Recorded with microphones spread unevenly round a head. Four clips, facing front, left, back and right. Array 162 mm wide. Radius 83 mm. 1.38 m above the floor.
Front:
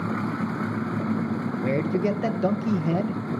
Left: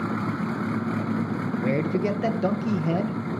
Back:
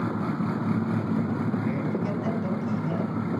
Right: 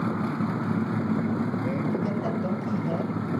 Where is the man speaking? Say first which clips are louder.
Left 3 dB, front 4 dB; 45° left, 1.2 m.